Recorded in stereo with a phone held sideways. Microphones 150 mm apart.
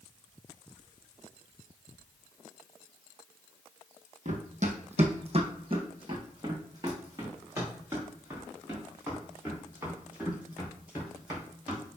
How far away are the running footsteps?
About 1.6 m.